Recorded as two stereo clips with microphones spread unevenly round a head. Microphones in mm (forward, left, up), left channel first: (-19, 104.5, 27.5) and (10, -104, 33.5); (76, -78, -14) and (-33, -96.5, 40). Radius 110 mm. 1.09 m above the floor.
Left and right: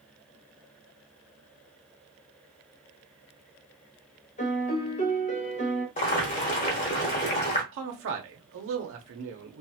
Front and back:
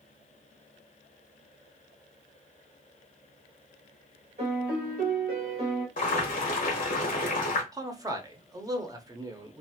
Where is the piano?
155° left, 0.7 m.